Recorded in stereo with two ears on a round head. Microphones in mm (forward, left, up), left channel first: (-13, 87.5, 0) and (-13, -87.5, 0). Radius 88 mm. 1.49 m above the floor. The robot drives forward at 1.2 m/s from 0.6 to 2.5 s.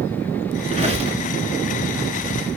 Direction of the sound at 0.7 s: 35° right (ahead or behind).